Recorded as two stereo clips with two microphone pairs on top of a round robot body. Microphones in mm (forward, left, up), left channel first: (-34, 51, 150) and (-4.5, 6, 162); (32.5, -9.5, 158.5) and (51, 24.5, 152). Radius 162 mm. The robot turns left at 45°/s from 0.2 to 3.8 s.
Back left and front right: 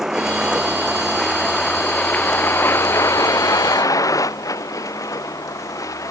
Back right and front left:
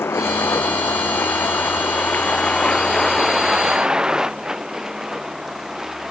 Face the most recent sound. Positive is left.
turn(degrees=145)